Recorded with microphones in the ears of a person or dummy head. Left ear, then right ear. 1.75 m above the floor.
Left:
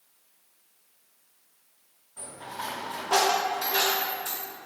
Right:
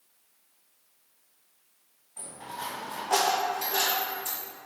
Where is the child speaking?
No child speaking in this recording.